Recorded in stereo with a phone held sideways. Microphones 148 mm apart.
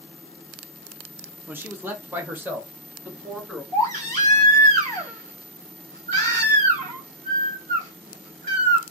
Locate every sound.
1.5 s a man speaking: 15° right (ahead or behind), 0.6 m; by 3.6 s 10° right (ahead or behind), 1.7 m
3.7 s a baby crying: 55° right (ahead or behind), 1.8 m